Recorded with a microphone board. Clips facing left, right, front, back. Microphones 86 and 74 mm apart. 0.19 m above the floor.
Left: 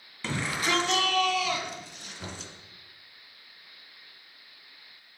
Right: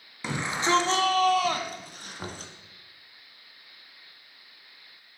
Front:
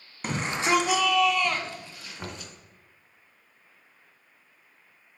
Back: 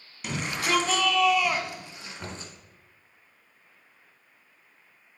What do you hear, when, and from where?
0.2 s a shout: 20° right, 1.7 m; by 2.5 s 125° right, 2.5 m
2.2 s knocking: 65° right, 1.8 m